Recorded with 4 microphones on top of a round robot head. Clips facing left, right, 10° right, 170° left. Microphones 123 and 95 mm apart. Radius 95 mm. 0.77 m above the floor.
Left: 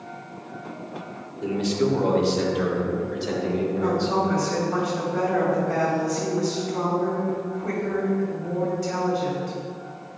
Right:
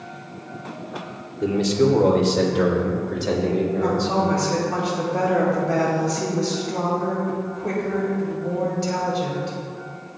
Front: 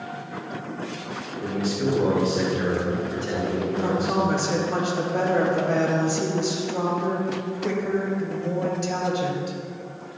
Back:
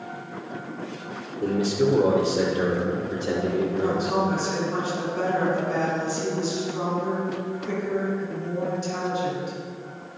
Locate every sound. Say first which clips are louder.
1.4 s a man speaking: right 4 dB, back 4 dB; 135° right, 2.5 m; by 4.2 s 125° right, 4 m
3.8 s a woman speaking: right 2 dB, even; 30° right, 4 m